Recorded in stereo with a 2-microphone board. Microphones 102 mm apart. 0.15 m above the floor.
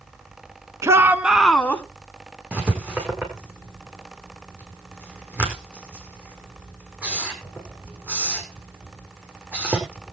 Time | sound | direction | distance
0.8 | a shout | 30° right (ahead or behind) | 1.4 m
2.5 | writing | 10° right (ahead or behind) | 5 m